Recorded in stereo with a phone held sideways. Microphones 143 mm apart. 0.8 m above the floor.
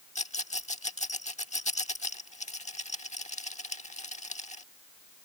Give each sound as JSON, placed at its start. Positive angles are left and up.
{"t": 0.1, "sound": "a rattle", "side_deg": 55}